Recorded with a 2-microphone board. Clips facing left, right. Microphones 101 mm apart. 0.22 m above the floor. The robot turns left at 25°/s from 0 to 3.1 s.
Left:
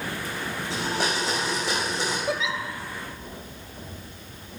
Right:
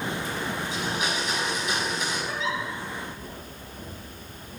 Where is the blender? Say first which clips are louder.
Left 6 dB; 110° left, 4.5 m; by 2.2 s 70° left, 4.5 m.